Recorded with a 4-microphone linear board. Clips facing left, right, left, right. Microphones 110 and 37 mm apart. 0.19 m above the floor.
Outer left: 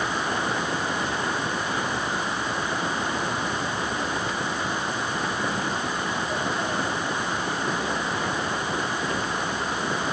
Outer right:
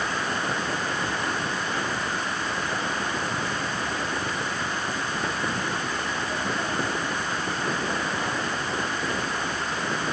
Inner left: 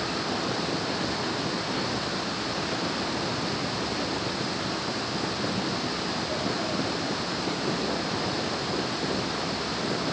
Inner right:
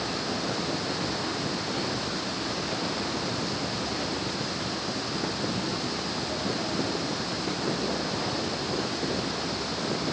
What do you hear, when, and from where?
Only background noise.